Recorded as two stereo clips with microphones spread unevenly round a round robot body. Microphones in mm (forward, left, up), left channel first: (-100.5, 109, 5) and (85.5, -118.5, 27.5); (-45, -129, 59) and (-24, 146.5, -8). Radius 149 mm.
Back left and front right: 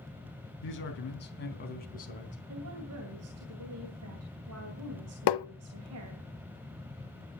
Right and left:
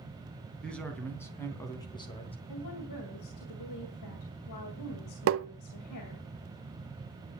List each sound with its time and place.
0.6 s a man speaking: 175° left, 3.5 m; by 2.4 s 170° right, 3 m
2.5 s a woman speaking: 80° right, 2.5 m
5.3 s tapping: 130° left, 0.6 m